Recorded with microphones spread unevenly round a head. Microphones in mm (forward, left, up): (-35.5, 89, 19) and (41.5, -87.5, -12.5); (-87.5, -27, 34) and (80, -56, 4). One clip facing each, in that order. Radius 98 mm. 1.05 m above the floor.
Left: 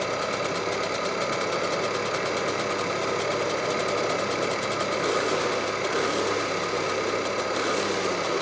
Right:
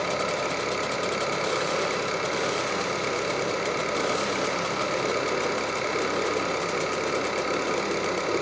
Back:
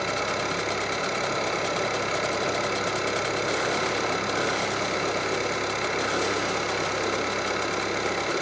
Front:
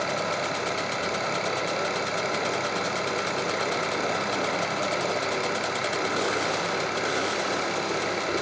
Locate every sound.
0.0 s an engine running: 135° right, 6.5 m